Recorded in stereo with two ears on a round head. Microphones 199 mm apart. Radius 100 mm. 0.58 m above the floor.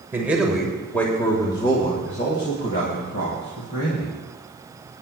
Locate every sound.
0.1 s a man speaking: 10° right (ahead or behind), 2 m; by 4.2 s 60° left (ahead or behind), 3 m